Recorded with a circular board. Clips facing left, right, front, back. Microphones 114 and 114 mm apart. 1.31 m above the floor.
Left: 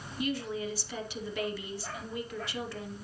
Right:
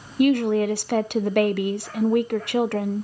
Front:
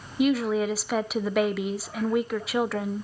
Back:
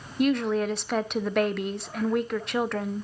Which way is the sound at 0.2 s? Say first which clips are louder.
Right 15 dB, front 1 dB; 85° right.